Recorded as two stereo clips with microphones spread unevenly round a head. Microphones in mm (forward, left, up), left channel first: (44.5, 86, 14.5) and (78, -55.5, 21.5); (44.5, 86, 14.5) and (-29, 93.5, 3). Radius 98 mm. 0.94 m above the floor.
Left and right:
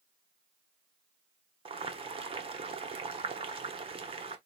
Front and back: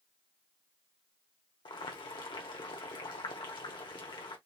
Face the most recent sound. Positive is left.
turn(degrees=-25)